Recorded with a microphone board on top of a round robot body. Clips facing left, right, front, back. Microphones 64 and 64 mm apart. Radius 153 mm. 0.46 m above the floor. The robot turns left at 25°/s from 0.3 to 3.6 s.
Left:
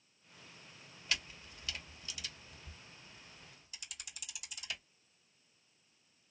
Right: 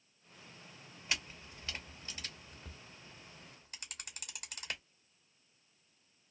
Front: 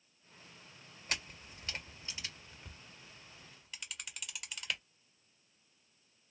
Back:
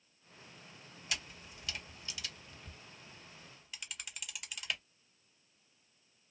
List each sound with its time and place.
1.1 s a camera shutter: 25° right, 1.5 m; by 4.8 s 90° right, 1.5 m